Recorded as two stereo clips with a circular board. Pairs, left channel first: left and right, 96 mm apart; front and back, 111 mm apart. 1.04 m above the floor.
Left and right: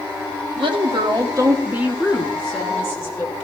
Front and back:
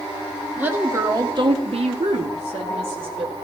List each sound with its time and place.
0.6 s a woman speaking: 105° right, 2 m; by 3.3 s 150° left, 3 m